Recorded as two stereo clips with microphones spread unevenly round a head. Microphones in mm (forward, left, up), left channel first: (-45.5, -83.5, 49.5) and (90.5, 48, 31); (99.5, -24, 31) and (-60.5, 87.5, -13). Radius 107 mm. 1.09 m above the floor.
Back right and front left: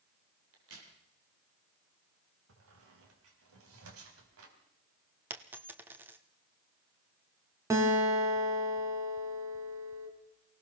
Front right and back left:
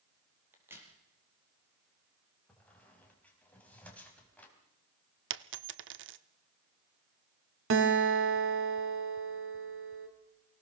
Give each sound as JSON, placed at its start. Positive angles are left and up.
{"t": 0.5, "sound": "a crack", "azimuth_deg": 65, "distance_m": 5.0}
{"t": 2.5, "sound": "a squeak", "azimuth_deg": 45, "distance_m": 4.0}
{"t": 5.3, "sound": "a dropped coin", "azimuth_deg": 130, "distance_m": 0.8}
{"t": 7.7, "sound": "a guitar", "azimuth_deg": 120, "distance_m": 2.5}